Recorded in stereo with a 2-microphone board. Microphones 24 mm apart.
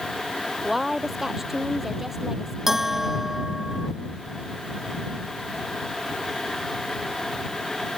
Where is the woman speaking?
15° right (ahead or behind).